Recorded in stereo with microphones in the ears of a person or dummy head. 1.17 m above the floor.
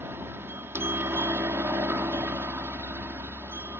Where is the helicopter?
15° right (ahead or behind).